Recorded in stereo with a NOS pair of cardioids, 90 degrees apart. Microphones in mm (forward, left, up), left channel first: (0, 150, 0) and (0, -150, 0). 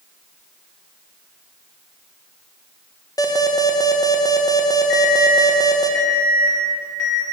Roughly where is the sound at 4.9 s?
Ahead left.